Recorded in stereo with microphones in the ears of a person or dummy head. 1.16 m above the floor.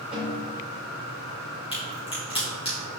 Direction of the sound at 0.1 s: 5° right (ahead or behind).